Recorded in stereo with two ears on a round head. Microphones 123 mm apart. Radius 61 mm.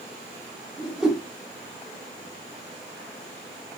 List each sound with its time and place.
0.8 s a whoosh: 5° right (ahead or behind), 0.7 m